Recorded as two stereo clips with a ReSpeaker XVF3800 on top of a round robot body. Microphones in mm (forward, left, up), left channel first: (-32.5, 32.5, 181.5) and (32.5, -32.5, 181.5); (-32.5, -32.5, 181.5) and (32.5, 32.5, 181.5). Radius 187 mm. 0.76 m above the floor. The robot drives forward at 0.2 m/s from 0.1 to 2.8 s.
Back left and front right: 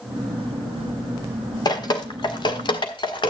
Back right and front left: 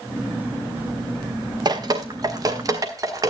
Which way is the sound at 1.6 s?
90° left.